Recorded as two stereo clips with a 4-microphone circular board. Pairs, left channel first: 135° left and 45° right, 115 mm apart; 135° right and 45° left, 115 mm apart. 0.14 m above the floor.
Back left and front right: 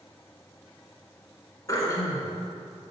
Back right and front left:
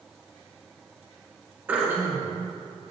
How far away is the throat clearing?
About 1.8 m.